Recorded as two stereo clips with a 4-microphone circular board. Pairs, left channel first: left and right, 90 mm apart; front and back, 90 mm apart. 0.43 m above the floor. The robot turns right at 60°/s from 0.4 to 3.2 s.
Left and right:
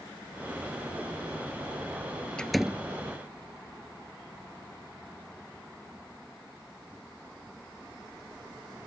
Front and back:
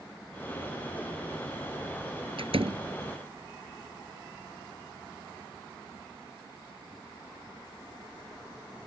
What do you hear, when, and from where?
2.4 s a door slam: 170° left; by 2.8 s 165° right